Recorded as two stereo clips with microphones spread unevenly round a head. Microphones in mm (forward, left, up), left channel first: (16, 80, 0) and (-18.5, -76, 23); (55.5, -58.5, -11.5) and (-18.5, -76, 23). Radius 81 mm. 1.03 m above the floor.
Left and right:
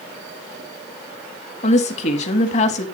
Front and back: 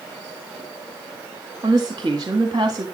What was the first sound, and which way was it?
A woman speaking, 125° left.